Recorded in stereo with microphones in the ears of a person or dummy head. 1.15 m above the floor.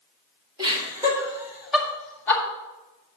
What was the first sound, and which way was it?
Laughter, 25° right (ahead or behind).